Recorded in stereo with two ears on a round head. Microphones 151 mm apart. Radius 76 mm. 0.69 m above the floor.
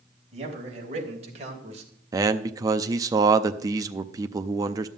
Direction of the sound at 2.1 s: 20° right (ahead or behind).